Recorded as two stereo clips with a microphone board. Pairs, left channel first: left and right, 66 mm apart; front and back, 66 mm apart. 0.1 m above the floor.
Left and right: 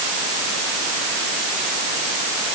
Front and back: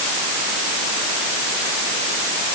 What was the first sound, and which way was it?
Only background noise.